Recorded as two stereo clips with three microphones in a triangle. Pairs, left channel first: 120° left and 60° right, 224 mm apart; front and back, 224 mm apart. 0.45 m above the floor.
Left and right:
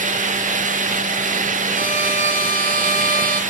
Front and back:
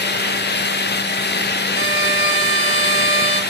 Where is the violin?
165° left, 1.7 m.